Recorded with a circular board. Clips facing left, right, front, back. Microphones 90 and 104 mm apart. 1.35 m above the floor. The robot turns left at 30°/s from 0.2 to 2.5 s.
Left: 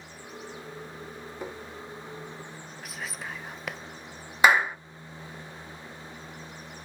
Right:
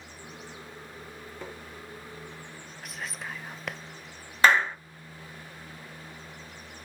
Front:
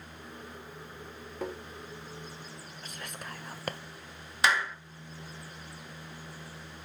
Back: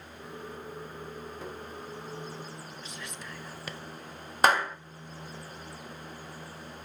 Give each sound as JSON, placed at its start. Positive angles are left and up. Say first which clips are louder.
{"t": 1.4, "sound": "tapping", "louder": "left 4 dB, front 8 dB", "azimuth_deg": 15, "distance_m": 1.4}
{"t": 2.8, "sound": "whispering", "louder": "even, even", "azimuth_deg": 5, "distance_m": 0.7}
{"t": 4.4, "sound": "a clap", "louder": "left 1 dB, back 4 dB", "azimuth_deg": 165, "distance_m": 0.6}